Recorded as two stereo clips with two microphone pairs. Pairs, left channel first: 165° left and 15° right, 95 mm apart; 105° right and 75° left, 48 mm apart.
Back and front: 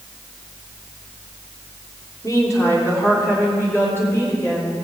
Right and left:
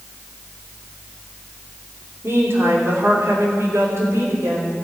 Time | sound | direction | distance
2.2 | a woman speaking | 110° left | 3 m